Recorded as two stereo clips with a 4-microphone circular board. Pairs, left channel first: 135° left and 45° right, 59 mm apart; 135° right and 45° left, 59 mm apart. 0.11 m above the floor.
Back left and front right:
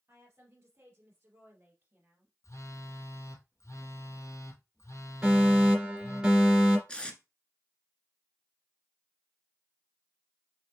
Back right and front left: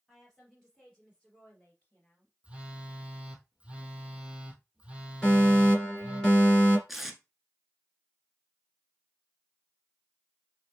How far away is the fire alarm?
About 2 m.